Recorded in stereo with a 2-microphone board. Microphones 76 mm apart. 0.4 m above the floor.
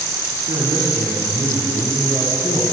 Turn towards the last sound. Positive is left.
turn(degrees=-60)  # may be behind; listen again after turning